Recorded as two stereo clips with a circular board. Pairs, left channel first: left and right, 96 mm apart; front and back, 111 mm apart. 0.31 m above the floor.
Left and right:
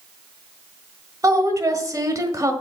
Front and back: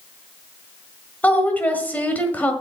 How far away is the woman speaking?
About 1.6 m.